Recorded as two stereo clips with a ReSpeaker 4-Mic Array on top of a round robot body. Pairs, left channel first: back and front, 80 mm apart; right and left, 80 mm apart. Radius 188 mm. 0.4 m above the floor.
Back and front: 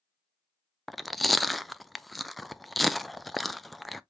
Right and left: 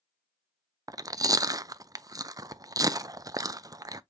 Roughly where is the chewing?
Left.